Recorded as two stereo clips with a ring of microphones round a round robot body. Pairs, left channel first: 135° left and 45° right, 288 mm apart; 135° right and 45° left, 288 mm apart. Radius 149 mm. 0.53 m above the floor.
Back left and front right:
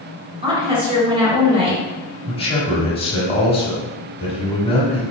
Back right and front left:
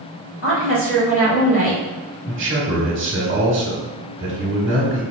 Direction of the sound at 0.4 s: 110° right.